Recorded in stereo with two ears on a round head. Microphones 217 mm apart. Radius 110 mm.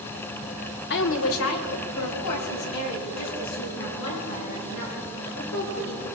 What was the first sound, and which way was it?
A woman speaking, 45° left (ahead or behind).